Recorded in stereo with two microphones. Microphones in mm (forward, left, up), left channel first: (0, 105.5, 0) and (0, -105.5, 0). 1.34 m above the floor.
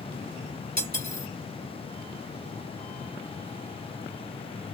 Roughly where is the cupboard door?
No cupboard door in this recording.